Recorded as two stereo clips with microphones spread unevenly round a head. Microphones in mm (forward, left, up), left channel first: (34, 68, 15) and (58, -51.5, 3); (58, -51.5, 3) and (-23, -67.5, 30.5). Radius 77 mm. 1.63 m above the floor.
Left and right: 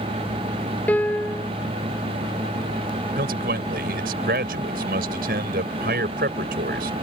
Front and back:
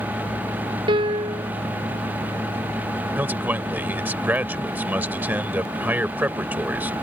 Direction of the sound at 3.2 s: 105° right.